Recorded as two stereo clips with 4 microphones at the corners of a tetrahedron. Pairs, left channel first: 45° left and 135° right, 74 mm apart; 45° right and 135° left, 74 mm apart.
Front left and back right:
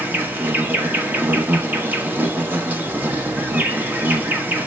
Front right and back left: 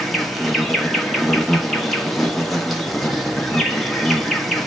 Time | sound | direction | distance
0.0 | an insect | 130° right | 0.8 m